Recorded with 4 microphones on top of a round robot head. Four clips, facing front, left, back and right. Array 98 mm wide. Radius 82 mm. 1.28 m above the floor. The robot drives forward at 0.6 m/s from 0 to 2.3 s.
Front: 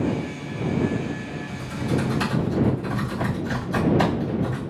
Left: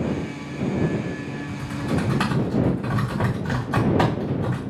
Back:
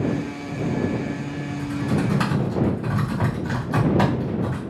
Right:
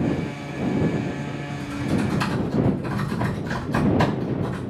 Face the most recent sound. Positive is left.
turn(degrees=125)